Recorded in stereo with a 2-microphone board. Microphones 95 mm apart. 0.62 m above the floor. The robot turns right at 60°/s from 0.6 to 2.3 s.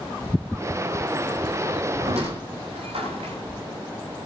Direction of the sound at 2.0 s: 85° right.